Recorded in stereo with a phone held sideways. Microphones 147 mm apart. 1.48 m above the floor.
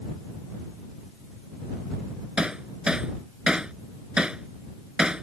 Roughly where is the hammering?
Centre.